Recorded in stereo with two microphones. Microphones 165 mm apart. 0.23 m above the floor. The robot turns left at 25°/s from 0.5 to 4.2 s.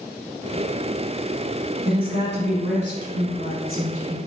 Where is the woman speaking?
40° right, 1.7 m; by 4.2 s 100° right, 1.7 m.